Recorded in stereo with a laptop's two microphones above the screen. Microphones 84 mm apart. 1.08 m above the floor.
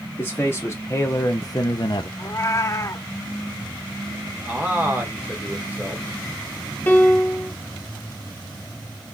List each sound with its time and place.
0.2 s a man speaking: 25° left (ahead or behind), 1.4 m; by 2.1 s 65° left (ahead or behind), 0.6 m
2.2 s a cat meowing: 35° left (ahead or behind), 0.6 m
4.5 s a man speaking: 20° right (ahead or behind), 1.1 m
6.9 s a piano: 20° left (ahead or behind), 0.8 m